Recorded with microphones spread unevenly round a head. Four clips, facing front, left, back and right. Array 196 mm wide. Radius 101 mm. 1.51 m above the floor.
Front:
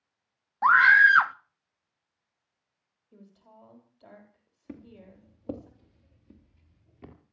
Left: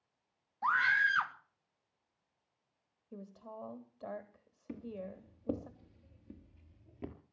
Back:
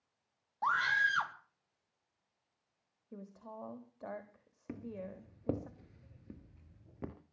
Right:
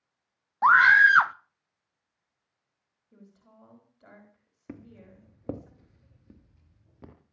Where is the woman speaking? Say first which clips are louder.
Left 8 dB, back 6 dB; 140° left, 3.5 m.